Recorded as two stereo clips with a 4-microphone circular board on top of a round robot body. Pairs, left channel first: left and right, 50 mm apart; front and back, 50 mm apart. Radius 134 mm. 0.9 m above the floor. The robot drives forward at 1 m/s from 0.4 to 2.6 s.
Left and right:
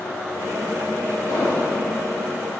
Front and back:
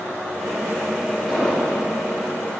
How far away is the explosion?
About 3.5 m.